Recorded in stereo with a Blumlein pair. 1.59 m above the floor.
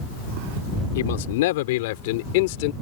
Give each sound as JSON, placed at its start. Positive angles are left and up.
{"t": 0.9, "sound": "a man speaking", "azimuth_deg": 55}